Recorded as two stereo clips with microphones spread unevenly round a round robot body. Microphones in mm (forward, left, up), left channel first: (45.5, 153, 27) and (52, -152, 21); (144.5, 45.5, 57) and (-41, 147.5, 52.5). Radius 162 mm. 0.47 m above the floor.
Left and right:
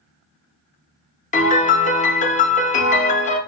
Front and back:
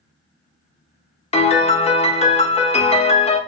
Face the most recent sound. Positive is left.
turn(degrees=30)